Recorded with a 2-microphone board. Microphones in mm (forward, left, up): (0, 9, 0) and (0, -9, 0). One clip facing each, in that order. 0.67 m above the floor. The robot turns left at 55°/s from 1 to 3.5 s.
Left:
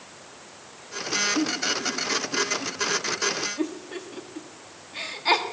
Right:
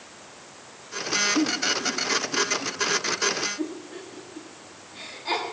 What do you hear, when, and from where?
1.4 s a giggle: 30° right (ahead or behind), 1.5 m; by 5.4 s 40° left (ahead or behind), 1.5 m